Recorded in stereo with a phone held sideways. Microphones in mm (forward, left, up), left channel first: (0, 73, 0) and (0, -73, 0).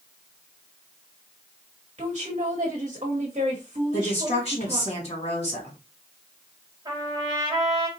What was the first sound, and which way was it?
A woman speaking, 45° right (ahead or behind).